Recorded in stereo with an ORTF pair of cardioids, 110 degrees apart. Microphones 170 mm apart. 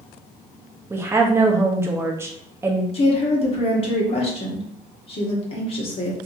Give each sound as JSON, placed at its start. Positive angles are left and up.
{"t": 0.9, "sound": "a woman speaking", "azimuth_deg": -15, "distance_m": 0.9}
{"t": 2.9, "sound": "a woman speaking", "azimuth_deg": 35, "distance_m": 1.6}